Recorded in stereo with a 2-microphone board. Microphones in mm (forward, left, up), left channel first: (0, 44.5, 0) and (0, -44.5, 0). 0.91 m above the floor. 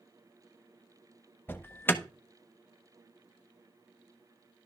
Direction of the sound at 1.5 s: 25° left (ahead or behind).